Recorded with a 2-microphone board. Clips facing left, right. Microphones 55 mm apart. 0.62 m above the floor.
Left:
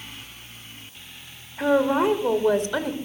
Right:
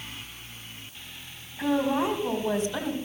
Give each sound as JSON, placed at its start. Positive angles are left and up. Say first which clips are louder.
{"t": 1.6, "sound": "a woman speaking", "louder": "left 5 dB", "side_deg": 65, "distance_m": 2.0}